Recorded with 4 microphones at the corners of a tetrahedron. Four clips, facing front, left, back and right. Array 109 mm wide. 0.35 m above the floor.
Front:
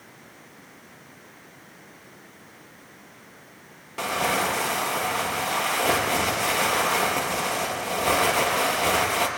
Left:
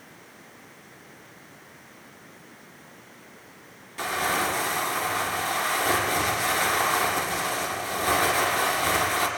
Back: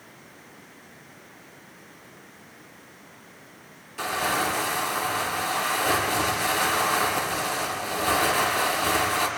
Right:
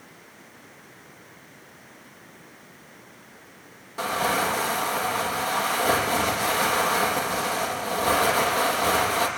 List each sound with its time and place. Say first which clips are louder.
4.0 s crumpling: right 2 dB, front 1 dB; 25° right, 5 m